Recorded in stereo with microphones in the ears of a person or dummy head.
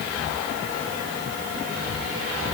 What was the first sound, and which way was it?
Only background noise.